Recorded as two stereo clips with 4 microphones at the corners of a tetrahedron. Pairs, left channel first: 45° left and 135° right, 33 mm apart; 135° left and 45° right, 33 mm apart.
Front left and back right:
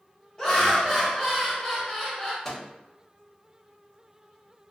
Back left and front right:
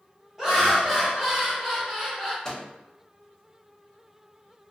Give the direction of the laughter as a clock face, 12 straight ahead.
12 o'clock.